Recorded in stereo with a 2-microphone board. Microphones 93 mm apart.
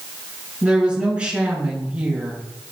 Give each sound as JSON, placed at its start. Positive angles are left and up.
{"t": 0.6, "sound": "a woman speaking", "side_deg": -10, "distance_m": 4.5}